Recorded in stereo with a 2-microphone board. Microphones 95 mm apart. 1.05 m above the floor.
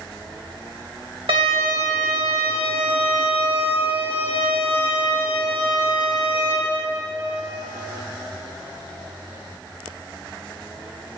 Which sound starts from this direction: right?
A violin, at 1.3 s.